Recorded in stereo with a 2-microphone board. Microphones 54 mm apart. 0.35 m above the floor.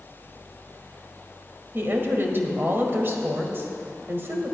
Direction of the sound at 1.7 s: 45° right (ahead or behind).